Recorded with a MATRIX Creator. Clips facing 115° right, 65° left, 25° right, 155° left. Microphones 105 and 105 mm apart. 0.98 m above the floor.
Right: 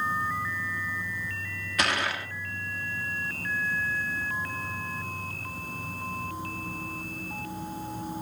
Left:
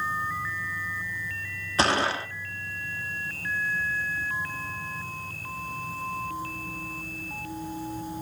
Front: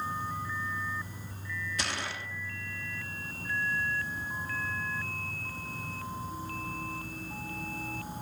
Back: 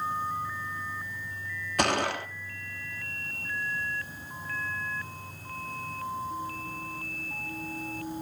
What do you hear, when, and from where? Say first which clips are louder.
0.0 s an insect: right 1 dB, back 4 dB; 75° right, 4.5 m
1.8 s a gunshot: left 5 dB, back 14 dB; 125° left, 1.2 m